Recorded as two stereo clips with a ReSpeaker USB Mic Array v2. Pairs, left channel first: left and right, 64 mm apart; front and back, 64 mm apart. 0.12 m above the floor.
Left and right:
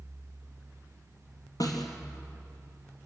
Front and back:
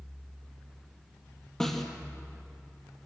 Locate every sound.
1.6 s a snare drum: 85° left, 3.5 m